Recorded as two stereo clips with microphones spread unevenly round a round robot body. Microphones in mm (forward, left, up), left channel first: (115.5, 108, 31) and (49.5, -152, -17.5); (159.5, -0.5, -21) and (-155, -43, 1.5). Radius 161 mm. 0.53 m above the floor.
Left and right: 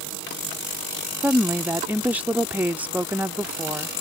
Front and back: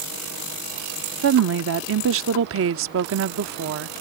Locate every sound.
1.2 s a woman speaking: 170° right